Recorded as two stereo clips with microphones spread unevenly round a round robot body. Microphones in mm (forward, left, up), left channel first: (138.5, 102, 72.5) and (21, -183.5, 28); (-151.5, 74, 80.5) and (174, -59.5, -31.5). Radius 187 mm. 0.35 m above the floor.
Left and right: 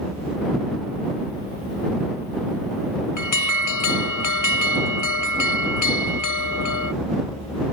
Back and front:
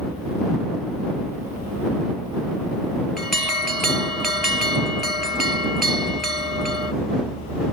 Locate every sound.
3.2 s an alarm: 55° left